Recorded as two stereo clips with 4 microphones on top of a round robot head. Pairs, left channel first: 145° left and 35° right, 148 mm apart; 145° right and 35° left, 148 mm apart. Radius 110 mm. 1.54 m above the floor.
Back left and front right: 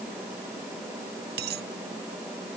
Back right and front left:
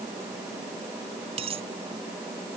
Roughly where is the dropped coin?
Ahead.